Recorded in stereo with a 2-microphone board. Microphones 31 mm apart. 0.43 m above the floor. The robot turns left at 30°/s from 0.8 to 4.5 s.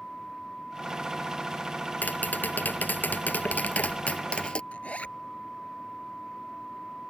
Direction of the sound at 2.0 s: 110° left.